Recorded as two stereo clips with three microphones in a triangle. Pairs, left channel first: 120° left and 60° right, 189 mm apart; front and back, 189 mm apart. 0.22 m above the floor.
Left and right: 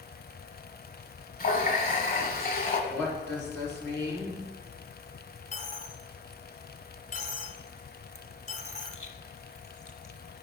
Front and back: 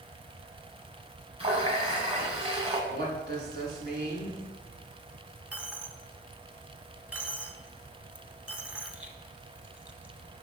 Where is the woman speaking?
165° right, 2.5 m.